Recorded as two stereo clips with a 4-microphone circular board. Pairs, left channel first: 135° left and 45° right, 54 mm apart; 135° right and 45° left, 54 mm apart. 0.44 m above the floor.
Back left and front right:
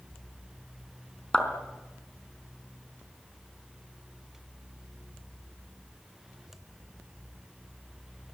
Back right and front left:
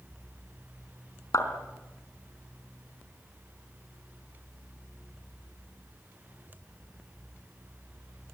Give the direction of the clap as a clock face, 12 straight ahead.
5 o'clock.